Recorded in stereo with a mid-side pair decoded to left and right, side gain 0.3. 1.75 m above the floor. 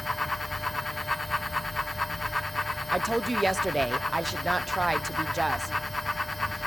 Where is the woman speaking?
15° right, 1.1 m.